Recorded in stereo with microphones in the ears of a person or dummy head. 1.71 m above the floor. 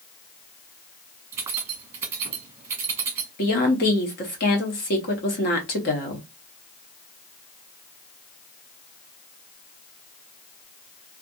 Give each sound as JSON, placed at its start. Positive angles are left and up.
{"t": 1.3, "sound": "keys jangling", "side_deg": -20, "distance_m": 1.2}
{"t": 3.4, "sound": "a woman speaking", "side_deg": 35, "distance_m": 0.7}